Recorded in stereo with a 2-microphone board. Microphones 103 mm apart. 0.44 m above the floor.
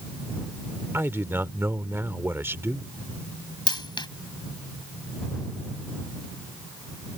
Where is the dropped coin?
45° left (ahead or behind).